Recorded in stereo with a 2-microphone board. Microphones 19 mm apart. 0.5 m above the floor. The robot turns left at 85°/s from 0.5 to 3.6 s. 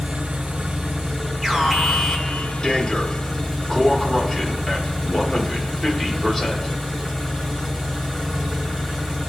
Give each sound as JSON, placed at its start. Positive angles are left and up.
{"t": 0.0, "sound": "an engine running", "azimuth_deg": -100, "distance_m": 1.9}
{"t": 1.4, "sound": "an alarm", "azimuth_deg": -150, "distance_m": 1.5}